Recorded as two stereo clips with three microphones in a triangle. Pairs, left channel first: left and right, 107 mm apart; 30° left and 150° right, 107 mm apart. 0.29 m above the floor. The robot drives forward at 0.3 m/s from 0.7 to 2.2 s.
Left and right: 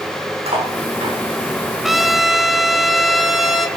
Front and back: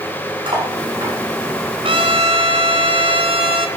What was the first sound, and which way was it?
Cutlery clinking, 105° right.